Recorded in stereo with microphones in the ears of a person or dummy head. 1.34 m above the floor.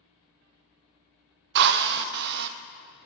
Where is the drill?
55° right (ahead or behind), 0.5 m.